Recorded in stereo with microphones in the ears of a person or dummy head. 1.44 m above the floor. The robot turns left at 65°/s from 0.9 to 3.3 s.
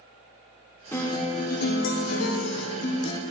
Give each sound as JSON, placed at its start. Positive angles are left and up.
{"t": 0.9, "sound": "a guitar", "azimuth_deg": 175, "distance_m": 1.2}